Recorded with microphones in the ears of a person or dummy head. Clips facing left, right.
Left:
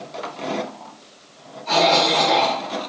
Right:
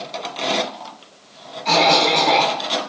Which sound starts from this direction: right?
A cough, at 1.6 s.